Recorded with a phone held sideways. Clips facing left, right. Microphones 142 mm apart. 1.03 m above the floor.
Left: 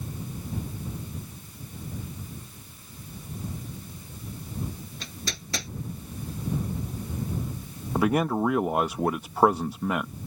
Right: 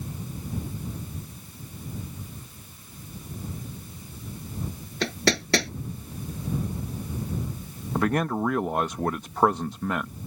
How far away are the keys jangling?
I don't hear keys jangling.